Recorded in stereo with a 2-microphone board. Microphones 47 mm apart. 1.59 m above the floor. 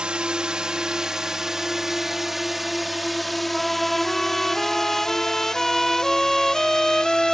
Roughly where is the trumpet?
Centre.